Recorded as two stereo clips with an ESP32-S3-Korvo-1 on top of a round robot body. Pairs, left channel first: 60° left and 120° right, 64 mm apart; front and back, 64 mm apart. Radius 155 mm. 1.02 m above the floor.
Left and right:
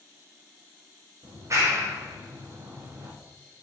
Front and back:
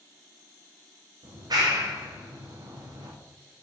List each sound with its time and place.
1.2 s a clap: 160° right, 1.6 m